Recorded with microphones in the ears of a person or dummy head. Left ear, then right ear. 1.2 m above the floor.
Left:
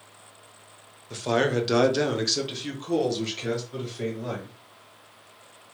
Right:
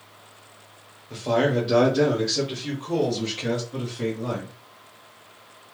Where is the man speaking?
50° left (ahead or behind), 0.7 m; by 4.5 s 25° left (ahead or behind), 1.9 m.